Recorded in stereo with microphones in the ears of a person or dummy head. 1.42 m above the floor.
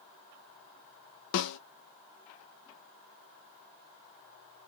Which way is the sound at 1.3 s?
75° left (ahead or behind).